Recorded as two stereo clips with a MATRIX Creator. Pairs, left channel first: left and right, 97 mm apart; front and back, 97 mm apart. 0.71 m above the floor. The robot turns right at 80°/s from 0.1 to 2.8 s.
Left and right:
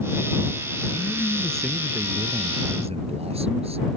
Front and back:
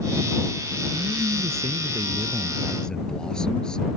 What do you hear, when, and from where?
0.9 s a man speaking: 130° left; by 4.0 s 85° right